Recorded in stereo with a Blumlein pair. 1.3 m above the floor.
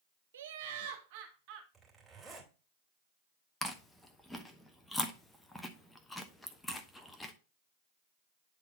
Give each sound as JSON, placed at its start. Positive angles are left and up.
{"t": 0.3, "sound": "laughter", "azimuth_deg": -65, "distance_m": 0.5}
{"t": 1.7, "sound": "a zipper", "azimuth_deg": -15, "distance_m": 2.5}
{"t": 3.6, "sound": "chewing", "azimuth_deg": 5, "distance_m": 0.9}